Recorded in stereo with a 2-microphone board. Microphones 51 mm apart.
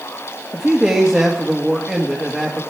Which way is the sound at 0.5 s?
10° right (ahead or behind).